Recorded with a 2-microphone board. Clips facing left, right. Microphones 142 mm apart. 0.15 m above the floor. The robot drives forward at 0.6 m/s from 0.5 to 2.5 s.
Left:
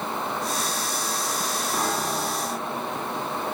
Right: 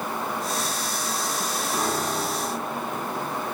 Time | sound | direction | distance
1.7 | a piano | centre (ahead or behind) | 5 m